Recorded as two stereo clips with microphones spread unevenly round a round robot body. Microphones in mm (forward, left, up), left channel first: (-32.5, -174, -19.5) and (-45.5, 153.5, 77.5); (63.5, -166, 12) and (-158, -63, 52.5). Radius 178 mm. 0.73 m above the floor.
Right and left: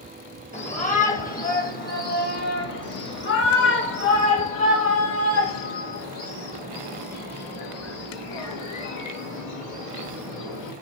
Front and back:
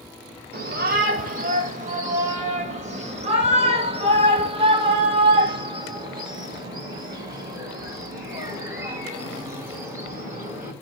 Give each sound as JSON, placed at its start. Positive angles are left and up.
{"t": 0.5, "sound": "a shout", "azimuth_deg": -150, "distance_m": 4.0}